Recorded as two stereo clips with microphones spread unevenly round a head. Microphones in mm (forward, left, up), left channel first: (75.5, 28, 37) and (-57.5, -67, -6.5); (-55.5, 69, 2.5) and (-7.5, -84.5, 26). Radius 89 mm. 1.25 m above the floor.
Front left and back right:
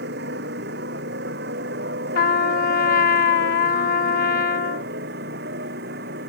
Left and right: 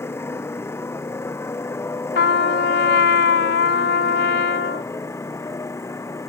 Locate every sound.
0.0 s a motorcycle: 175° right; by 6.3 s straight behind
2.1 s a trumpet: 80° left